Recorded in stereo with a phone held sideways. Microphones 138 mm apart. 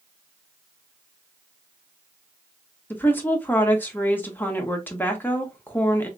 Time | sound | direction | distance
2.9 | a woman speaking | 15° left (ahead or behind) | 1.1 m